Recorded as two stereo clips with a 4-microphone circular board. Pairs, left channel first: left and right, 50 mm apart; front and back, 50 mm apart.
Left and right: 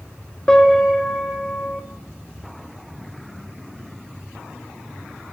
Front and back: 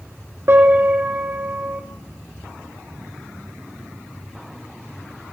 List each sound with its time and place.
0.5 s a piano: 165° left, 2.5 m